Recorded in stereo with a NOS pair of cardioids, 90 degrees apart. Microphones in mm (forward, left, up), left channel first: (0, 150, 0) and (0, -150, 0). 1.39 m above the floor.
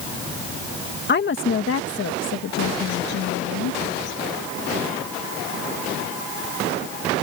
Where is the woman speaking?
35° left; by 3.8 s 80° left.